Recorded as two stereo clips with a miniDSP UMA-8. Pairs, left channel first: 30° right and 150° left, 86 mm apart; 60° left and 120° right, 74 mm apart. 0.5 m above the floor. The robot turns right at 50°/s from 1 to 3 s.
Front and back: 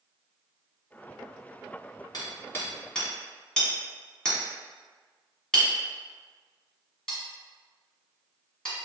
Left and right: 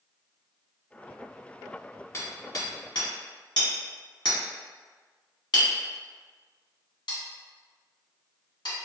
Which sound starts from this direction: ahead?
Hammering, at 2.1 s.